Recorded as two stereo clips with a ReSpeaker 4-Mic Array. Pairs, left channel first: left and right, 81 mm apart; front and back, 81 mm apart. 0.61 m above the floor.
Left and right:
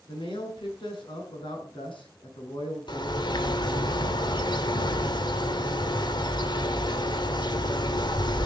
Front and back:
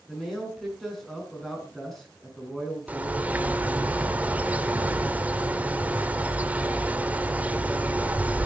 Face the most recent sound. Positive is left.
turn(degrees=110)